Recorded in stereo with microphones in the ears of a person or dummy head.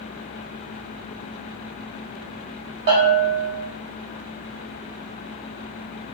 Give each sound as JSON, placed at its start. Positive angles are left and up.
{"t": 2.9, "sound": "a bell", "side_deg": -45, "distance_m": 1.2}